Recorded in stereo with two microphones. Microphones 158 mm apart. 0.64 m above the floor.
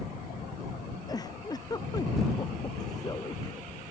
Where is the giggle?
25° left (ahead or behind).